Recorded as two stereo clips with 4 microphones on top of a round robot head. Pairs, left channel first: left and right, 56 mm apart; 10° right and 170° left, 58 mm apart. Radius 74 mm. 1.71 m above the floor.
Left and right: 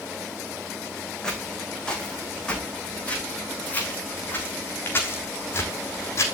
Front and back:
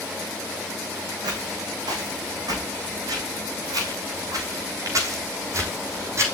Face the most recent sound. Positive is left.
turn(degrees=130)